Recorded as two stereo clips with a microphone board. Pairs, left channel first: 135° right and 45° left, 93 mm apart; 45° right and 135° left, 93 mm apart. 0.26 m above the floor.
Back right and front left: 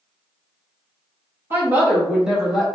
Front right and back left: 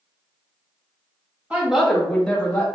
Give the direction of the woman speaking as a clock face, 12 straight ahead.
9 o'clock.